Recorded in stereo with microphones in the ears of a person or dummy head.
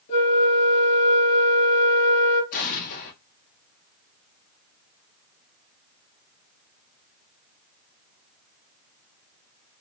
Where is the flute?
65° left (ahead or behind), 1.4 m.